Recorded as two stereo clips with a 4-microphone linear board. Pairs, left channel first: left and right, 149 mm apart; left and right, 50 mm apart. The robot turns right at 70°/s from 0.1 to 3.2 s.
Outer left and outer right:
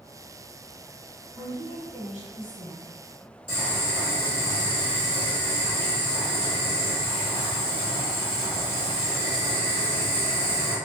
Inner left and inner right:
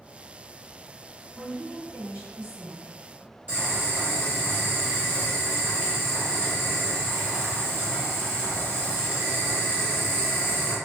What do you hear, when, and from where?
1.3 s a woman speaking: 160° right, 1.3 m; by 2.9 s 55° right, 1.3 m
3.5 s boiling: 35° right (ahead or behind), 1.7 m